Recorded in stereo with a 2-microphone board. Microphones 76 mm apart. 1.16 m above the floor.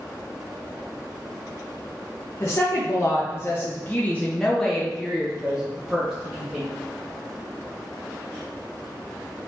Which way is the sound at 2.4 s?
35° left (ahead or behind).